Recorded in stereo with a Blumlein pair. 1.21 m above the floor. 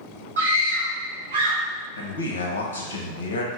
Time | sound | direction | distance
0.4 | a scream | 65° right | 1.3 m
2.0 | a man speaking | 70° left | 0.6 m